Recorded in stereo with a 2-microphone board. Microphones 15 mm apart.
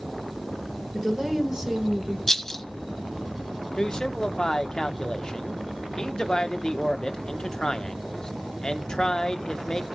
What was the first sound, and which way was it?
A woman speaking, 35° right (ahead or behind).